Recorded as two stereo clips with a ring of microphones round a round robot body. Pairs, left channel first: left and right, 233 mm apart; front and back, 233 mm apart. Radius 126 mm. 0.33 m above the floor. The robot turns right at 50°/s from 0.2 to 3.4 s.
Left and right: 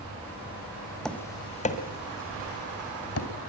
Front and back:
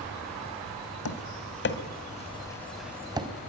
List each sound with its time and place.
1.1 s tapping: 5° left, 1.9 m; by 3.3 s 115° left, 1.9 m